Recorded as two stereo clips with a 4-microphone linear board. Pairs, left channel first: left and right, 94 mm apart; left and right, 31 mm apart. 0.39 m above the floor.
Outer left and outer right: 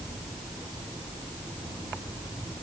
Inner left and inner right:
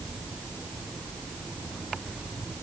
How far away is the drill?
No drill in this recording.